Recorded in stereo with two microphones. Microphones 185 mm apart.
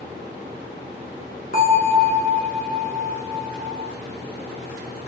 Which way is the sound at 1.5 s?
45° left (ahead or behind).